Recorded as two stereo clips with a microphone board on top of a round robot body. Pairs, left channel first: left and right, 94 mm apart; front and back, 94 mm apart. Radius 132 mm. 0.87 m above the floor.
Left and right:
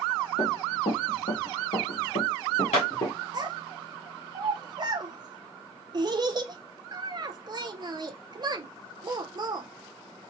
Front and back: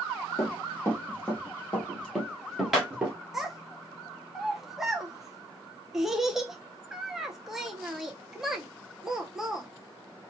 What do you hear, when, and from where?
0.4 s running footsteps: 60° left, 2 m; by 3.1 s 105° left, 1.3 m
3.3 s a child speaking: 95° right, 0.5 m